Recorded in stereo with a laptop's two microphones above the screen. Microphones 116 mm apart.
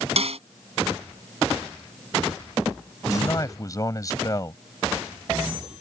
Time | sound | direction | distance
0.2 | a snare drum | 65° right (ahead or behind) | ?
3.1 | a man speaking | 30° left (ahead or behind) | ?